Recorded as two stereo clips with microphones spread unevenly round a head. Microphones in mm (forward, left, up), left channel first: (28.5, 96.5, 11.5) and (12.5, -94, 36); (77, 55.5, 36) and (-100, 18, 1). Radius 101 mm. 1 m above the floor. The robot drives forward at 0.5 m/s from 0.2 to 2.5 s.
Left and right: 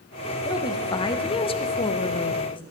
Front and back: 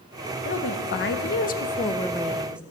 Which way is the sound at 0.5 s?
20° left.